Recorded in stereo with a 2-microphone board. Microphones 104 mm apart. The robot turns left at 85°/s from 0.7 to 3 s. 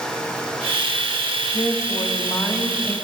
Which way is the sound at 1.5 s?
110° left.